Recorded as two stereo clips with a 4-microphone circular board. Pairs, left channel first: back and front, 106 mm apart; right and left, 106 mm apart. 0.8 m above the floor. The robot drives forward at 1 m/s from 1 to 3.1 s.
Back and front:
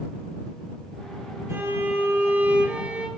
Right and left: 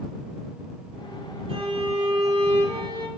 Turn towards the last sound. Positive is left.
turn(degrees=80)